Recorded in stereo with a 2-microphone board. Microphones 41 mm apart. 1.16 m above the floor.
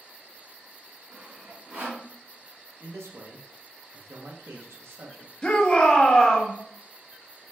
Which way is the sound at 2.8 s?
80° right.